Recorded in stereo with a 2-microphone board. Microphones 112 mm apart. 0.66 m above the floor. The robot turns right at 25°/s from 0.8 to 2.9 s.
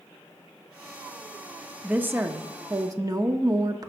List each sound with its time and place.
1.8 s a woman speaking: 15° right (ahead or behind), 0.8 m; by 3.9 s 30° right (ahead or behind), 0.8 m